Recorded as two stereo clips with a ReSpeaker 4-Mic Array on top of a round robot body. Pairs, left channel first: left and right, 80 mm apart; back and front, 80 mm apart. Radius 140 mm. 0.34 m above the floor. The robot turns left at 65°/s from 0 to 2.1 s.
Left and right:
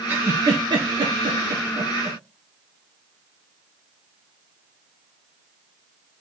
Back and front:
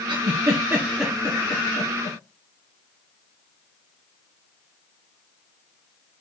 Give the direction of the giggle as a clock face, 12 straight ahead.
1 o'clock.